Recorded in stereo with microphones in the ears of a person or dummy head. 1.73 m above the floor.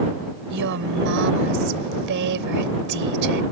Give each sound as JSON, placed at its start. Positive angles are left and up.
{"t": 0.5, "sound": "a woman speaking", "side_deg": -60}